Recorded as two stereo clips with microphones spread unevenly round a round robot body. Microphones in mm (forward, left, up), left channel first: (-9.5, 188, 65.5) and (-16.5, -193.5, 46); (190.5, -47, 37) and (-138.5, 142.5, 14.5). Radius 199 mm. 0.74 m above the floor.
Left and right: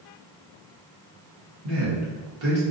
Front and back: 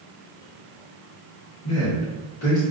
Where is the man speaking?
85° right, 1.6 m.